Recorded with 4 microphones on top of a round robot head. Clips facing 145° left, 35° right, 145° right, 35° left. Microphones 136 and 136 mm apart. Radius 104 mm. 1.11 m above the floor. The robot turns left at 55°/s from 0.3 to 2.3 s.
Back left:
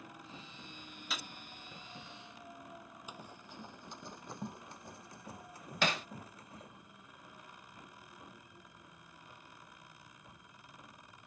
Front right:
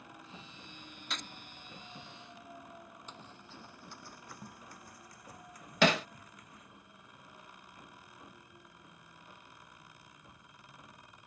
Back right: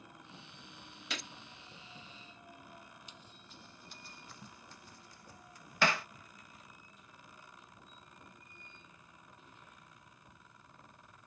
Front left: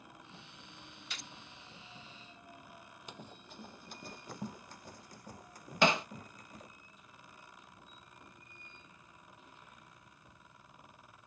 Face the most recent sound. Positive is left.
turn(degrees=-40)